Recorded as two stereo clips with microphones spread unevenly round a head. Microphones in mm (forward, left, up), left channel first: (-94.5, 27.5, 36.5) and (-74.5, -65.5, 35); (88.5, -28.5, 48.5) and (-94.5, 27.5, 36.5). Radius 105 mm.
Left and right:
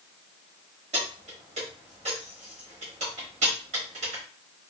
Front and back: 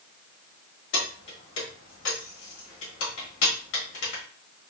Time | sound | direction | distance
0.9 | keys jangling | 40° right | 1.1 m